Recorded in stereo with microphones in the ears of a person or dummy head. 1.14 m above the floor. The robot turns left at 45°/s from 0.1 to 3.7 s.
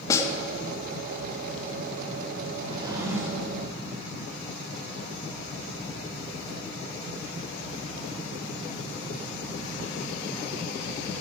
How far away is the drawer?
About 2 m.